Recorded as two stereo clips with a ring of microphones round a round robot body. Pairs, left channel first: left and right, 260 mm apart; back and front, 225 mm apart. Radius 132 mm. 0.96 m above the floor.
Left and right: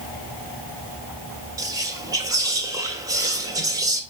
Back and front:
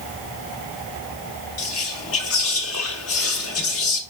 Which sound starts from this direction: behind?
Whispering, at 1.6 s.